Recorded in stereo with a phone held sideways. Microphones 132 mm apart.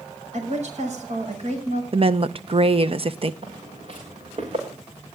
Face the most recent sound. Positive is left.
turn(degrees=-50)  # may be behind; listen again after turning